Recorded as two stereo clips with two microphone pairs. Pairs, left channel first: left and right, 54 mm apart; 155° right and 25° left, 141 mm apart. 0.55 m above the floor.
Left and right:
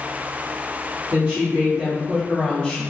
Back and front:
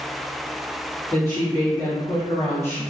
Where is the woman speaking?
95° right, 1.3 m; by 2.8 s 140° left, 1.5 m.